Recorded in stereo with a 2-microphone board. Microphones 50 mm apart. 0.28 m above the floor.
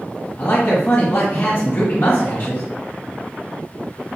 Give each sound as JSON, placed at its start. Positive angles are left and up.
{"t": 0.4, "sound": "a man speaking", "side_deg": 40, "distance_m": 1.6}